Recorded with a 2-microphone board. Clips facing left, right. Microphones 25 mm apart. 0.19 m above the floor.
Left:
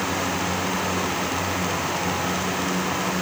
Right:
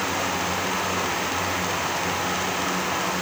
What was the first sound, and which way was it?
Only background noise.